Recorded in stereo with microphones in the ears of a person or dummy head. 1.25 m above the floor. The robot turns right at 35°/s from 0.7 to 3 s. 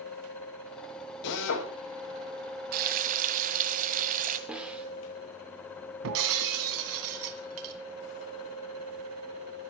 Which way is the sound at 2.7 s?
45° right (ahead or behind).